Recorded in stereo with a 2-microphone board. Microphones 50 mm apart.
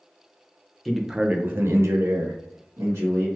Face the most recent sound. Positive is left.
turn(degrees=-80)